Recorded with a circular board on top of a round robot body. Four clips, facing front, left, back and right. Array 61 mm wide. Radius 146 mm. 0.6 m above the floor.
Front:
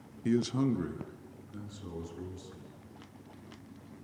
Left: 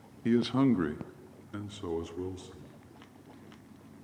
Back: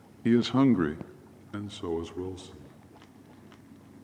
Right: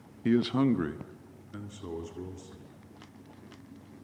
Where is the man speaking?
160° right, 1.1 m; by 2.8 s 160° left, 3 m.